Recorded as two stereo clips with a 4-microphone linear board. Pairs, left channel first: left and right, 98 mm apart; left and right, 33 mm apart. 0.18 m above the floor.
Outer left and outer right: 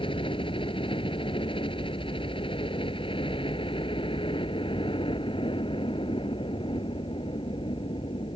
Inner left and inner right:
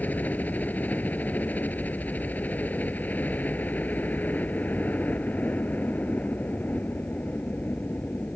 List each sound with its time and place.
0.0 s a helicopter: 65° left (ahead or behind)